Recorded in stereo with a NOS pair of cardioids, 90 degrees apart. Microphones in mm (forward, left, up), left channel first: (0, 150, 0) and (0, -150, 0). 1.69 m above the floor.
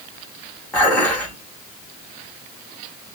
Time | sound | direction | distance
0.7 | dishes clattering | 5° left | 2 m